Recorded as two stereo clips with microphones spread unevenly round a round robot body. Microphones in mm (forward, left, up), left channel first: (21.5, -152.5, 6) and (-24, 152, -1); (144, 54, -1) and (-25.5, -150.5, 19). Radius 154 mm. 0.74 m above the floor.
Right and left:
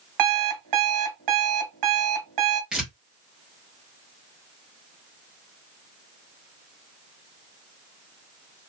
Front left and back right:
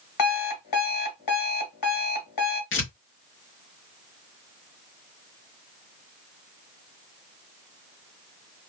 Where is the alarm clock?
70° left, 1.4 m.